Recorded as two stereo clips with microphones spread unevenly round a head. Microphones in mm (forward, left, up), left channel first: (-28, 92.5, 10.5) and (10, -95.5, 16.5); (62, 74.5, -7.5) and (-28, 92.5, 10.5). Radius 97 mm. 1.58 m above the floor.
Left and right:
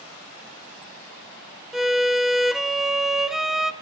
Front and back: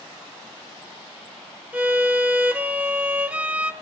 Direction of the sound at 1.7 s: 160° right.